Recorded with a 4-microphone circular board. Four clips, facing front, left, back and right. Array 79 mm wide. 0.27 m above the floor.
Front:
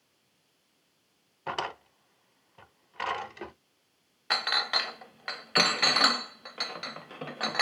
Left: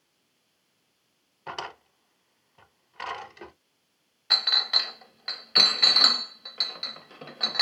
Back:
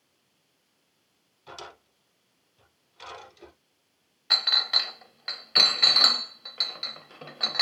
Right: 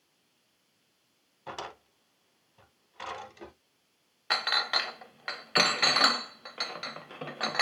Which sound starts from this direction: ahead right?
A clink, at 4.3 s.